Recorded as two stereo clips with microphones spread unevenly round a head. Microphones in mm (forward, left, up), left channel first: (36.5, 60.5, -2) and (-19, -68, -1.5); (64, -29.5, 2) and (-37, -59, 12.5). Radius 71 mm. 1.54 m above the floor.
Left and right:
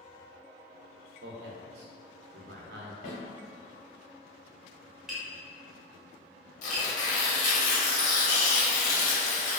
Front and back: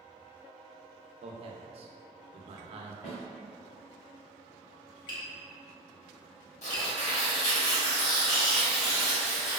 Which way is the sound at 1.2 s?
130° right.